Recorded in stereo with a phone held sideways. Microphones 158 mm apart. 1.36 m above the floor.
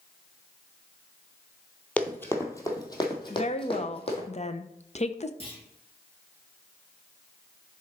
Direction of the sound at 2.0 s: 10° left (ahead or behind).